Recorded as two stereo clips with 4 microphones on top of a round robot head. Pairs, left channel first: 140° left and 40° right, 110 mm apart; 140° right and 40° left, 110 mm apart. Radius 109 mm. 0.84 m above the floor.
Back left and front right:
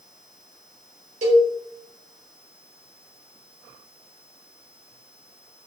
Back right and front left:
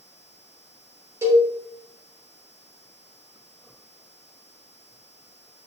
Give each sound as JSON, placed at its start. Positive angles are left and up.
{"t": 1.2, "sound": "a cowbell", "azimuth_deg": -25, "distance_m": 2.5}